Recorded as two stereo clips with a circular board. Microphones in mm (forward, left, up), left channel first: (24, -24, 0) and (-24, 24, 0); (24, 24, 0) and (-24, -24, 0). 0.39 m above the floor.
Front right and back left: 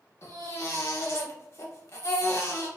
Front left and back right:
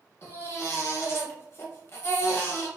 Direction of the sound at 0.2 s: 5° right.